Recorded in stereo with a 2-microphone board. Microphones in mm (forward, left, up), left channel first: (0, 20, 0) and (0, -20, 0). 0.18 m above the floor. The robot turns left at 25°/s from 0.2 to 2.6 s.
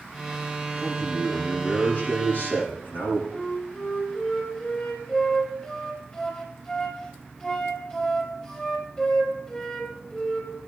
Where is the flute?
25° left (ahead or behind), 3 m.